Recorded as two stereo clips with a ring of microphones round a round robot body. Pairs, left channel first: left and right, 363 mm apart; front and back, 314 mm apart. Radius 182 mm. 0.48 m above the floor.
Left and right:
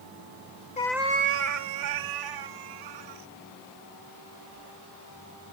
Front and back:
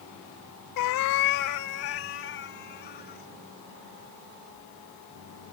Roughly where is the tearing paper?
No tearing paper in this recording.